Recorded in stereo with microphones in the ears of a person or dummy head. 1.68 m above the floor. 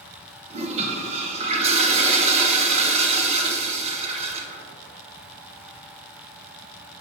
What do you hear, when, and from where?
0.5 s a toilet flushing: 40° right (ahead or behind), 1.0 m